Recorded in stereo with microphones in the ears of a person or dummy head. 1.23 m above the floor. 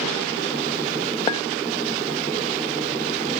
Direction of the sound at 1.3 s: 25° left (ahead or behind).